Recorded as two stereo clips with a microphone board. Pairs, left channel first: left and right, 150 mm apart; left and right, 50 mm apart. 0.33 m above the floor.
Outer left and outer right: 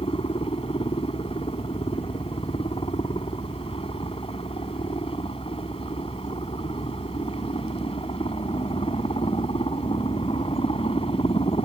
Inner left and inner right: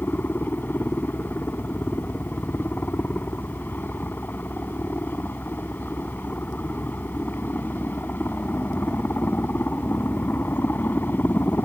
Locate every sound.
0.0 s a helicopter: 40° left (ahead or behind)